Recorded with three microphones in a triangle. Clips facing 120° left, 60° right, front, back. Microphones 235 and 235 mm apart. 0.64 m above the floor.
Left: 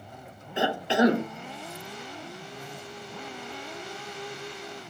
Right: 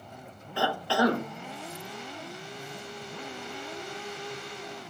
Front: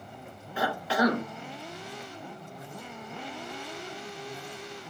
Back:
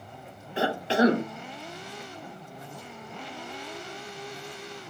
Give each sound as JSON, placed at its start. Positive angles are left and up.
{"t": 0.6, "sound": "a cough", "azimuth_deg": 165, "distance_m": 0.5}